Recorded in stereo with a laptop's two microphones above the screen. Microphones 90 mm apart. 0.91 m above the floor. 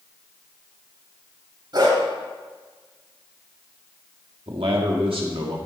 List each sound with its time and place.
1.7 s a dog barking: 55° right (ahead or behind), 2.5 m
4.5 s a man speaking: 75° right (ahead or behind), 1.6 m